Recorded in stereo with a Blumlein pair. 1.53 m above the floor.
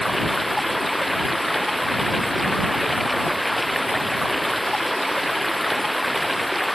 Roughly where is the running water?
Ahead.